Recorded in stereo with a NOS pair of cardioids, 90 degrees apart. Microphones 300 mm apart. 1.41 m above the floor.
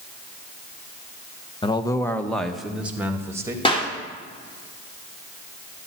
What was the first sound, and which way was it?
A man speaking, 20° left.